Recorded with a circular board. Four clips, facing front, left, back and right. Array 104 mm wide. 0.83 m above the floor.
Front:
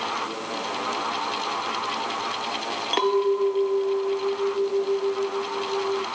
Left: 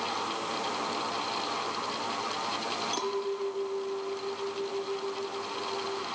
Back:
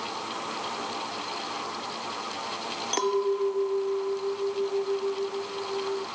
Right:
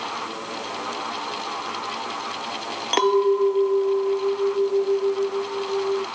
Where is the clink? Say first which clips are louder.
Right 17 dB, front 4 dB; 70° right.